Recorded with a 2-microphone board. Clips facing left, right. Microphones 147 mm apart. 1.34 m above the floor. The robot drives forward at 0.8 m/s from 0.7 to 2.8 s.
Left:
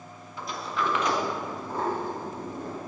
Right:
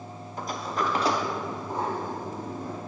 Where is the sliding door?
40° right (ahead or behind), 0.6 m; by 2.8 s 10° right (ahead or behind), 1.9 m.